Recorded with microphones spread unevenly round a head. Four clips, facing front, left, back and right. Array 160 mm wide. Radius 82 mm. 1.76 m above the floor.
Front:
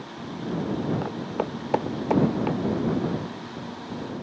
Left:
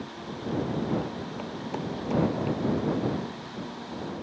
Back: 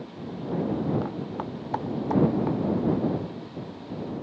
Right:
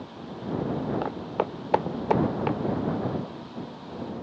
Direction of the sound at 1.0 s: 55° right.